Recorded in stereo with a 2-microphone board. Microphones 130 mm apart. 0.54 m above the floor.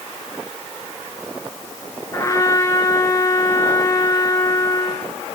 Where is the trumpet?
25° left (ahead or behind), 4 m.